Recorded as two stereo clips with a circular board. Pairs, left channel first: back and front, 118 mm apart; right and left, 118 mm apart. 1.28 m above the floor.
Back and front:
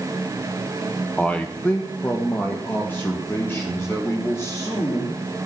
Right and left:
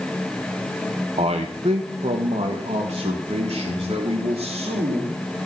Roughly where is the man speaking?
Left.